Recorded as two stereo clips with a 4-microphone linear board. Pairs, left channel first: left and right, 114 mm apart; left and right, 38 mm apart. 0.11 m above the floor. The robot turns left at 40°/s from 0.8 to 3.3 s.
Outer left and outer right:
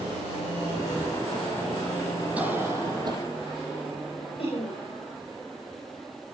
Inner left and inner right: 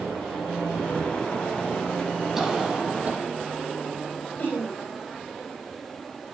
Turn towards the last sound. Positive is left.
turn(degrees=50)  # may be behind; listen again after turning